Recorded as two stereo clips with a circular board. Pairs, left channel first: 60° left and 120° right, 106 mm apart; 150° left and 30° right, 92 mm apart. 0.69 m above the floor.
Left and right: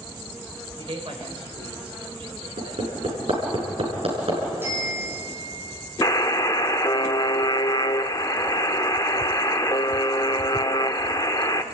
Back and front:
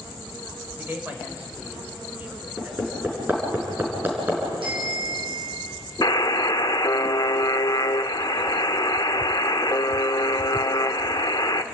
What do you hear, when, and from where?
0.8 s a man speaking: 100° right, 3.5 m; by 2.8 s 95° right, 2.5 m
2.6 s hammering: 100° right, 5.5 m
4.6 s a bicycle bell: 50° right, 6 m
6.0 s a buzzer: 110° left, 0.8 m